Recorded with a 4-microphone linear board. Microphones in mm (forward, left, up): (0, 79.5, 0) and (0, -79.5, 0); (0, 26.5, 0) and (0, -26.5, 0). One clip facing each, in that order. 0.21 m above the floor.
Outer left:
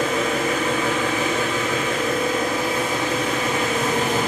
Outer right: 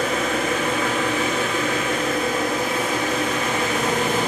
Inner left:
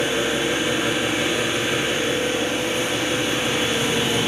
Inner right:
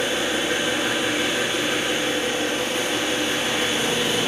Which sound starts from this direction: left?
An engine running, at 0.0 s.